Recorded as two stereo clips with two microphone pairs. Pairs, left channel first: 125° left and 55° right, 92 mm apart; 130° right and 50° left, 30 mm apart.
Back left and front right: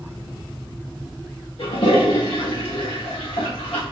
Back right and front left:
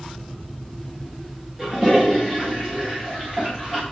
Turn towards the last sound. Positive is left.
turn(degrees=125)